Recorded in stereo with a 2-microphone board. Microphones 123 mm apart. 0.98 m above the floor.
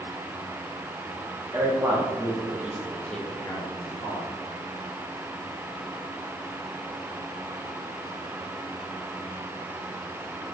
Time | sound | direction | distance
1.5 | a man speaking | 30° right (ahead or behind) | 1.1 m